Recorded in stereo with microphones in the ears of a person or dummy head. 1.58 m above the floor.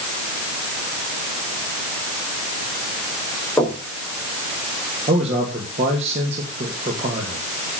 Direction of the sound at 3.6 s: 15° left (ahead or behind).